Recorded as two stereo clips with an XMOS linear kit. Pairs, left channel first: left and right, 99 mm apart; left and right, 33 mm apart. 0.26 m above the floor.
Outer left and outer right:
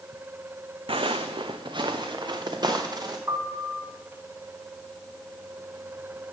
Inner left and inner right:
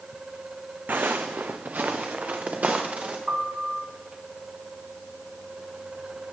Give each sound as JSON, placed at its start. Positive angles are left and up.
{"t": 0.9, "sound": "footsteps", "side_deg": -65, "distance_m": 0.8}
{"t": 3.3, "sound": "a piano", "side_deg": -30, "distance_m": 1.2}